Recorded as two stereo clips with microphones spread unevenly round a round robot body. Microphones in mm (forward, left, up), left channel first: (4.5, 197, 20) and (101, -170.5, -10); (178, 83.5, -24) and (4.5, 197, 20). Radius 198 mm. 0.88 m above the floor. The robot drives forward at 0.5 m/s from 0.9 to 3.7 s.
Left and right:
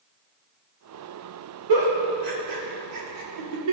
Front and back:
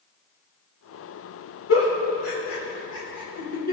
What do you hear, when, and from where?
1.7 s a giggle: 50° right, 2.5 m; by 3.7 s 75° right, 2 m